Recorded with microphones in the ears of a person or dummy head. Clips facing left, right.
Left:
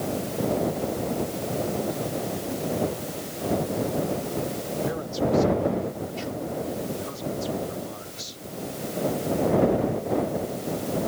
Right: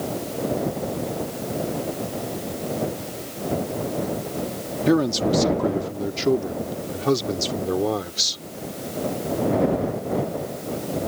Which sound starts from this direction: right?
A man speaking, at 4.9 s.